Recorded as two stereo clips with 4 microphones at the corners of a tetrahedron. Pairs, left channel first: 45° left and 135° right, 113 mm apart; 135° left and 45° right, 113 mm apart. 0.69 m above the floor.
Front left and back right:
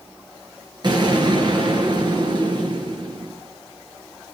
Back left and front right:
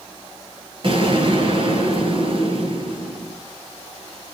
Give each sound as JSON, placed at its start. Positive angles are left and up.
{"t": 0.8, "sound": "an explosion", "azimuth_deg": -85, "distance_m": 6.5}